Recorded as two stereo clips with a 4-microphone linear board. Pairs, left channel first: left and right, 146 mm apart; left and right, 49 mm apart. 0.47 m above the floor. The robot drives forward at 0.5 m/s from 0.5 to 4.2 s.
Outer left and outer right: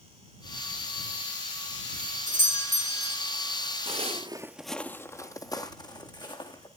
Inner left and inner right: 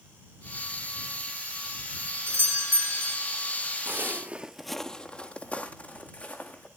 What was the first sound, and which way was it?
A doorbell, 60° right (ahead or behind).